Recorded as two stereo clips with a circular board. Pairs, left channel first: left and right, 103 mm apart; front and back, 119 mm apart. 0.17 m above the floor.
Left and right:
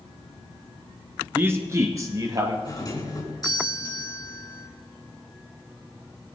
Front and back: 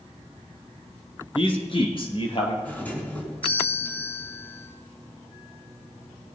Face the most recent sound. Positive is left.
turn(degrees=70)